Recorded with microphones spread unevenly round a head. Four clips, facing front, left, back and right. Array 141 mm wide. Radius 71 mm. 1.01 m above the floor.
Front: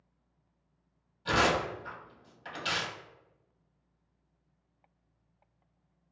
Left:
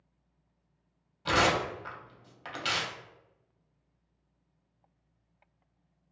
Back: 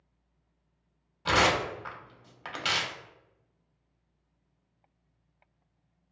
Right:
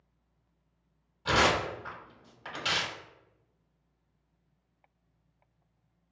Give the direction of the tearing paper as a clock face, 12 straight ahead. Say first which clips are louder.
Even, back 2 dB; 6 o'clock.